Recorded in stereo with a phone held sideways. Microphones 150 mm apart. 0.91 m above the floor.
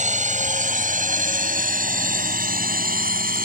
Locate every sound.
0.0 s a drone: 55° right (ahead or behind); by 3.5 s 70° right (ahead or behind)